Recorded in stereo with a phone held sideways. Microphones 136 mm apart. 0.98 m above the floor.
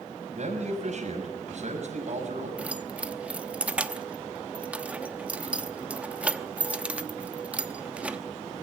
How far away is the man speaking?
About 6 m.